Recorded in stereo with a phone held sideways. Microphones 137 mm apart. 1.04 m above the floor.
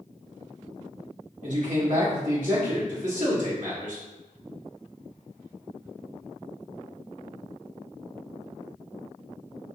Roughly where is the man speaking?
Right.